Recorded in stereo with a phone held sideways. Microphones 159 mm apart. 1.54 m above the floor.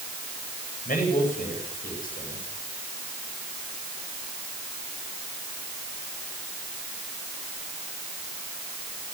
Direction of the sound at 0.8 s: 60° left (ahead or behind).